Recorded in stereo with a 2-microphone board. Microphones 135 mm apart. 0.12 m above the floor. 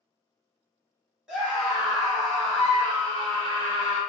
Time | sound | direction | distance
1.3 | a scream | 5° right (ahead or behind) | 1.6 m